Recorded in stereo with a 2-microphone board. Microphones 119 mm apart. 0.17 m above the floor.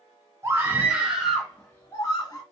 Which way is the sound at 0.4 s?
20° right (ahead or behind).